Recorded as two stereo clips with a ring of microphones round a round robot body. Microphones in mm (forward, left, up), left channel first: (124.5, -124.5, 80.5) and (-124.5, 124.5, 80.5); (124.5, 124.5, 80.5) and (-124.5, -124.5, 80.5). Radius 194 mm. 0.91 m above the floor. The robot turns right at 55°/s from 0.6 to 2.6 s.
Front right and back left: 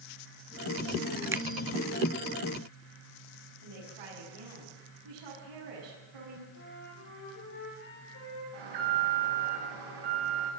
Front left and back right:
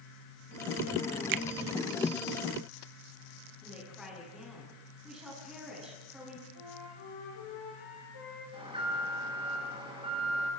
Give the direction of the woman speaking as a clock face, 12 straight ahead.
8 o'clock.